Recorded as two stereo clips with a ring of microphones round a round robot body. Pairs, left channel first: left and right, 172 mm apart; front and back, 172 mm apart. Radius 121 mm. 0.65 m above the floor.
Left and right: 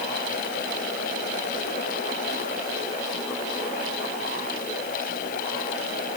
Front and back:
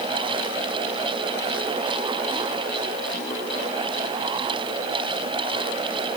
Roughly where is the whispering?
I don't hear whispering.